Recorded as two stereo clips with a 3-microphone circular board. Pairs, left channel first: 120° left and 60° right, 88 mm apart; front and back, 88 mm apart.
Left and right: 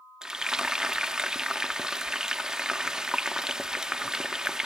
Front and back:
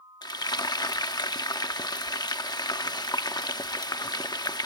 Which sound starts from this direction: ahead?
Frying, at 0.2 s.